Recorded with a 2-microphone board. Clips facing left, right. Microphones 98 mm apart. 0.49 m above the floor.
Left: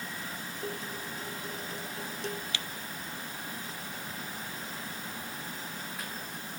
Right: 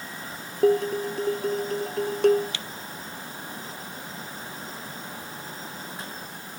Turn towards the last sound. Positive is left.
turn(degrees=-65)  # may be behind; listen again after turning